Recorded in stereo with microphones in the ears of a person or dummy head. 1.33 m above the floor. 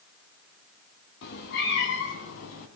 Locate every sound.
1.2 s a cat meowing: 60° left (ahead or behind), 4 m; by 2.7 s 75° left (ahead or behind), 3.5 m